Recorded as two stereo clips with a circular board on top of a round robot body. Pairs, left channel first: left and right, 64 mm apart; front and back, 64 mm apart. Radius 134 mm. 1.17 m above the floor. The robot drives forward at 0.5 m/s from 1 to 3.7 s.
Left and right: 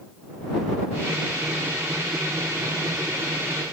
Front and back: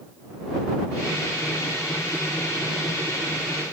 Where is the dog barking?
No dog barking in this recording.